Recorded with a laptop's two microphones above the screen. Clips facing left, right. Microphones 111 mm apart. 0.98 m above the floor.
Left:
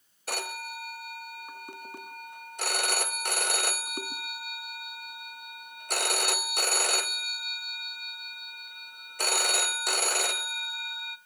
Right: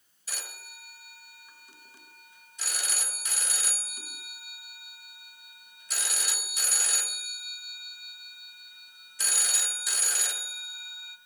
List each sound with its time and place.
0.3 s a phone ringing: 60° left (ahead or behind), 0.5 m